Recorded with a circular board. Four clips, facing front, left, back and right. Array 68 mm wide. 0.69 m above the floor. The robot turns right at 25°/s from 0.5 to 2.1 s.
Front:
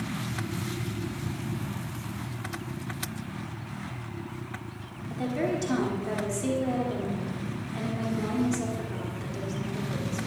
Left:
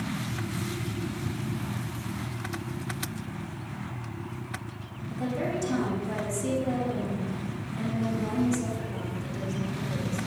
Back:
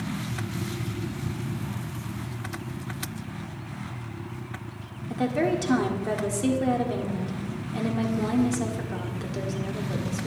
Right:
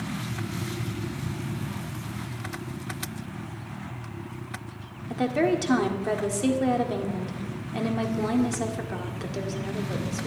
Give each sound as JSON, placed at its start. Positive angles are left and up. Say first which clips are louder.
{"t": 5.1, "sound": "a woman speaking", "louder": "right 7 dB, back 4 dB", "azimuth_deg": -120, "distance_m": 1.6}